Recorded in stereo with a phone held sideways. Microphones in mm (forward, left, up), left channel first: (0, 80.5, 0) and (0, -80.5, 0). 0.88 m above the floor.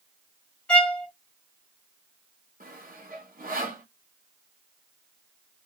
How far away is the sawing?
About 1.3 m.